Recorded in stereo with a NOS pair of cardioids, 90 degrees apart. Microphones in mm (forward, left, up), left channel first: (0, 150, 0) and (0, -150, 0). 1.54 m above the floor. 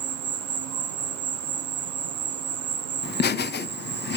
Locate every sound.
0.0 s an insect: 60° right, 0.9 m
3.0 s laughter: 35° left, 0.7 m